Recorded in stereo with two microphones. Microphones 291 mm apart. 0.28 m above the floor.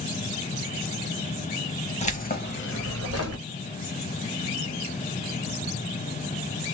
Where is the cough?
No cough in this recording.